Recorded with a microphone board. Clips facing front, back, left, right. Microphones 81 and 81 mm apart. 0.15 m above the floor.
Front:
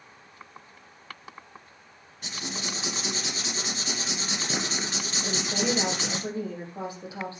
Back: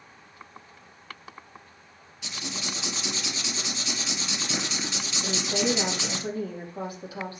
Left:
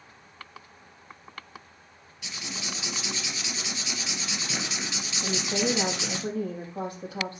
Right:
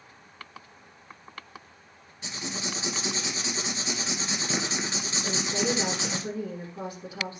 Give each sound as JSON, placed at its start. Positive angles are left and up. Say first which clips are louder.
{"t": 2.2, "sound": "writing", "louder": "front 1 dB, right 3 dB", "azimuth_deg": -40, "distance_m": 2.5}
{"t": 5.2, "sound": "a woman speaking", "louder": "back 2 dB, left 2 dB", "azimuth_deg": 70, "distance_m": 5.5}